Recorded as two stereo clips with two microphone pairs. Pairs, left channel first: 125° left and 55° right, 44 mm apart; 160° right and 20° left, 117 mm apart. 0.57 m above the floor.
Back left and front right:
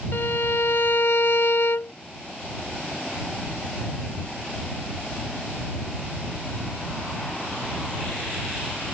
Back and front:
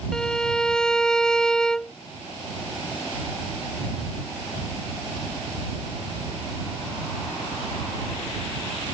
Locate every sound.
0.1 s a violin: 115° left